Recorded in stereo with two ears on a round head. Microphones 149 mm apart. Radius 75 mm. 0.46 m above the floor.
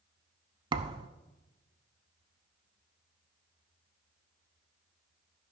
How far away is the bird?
No bird in this recording.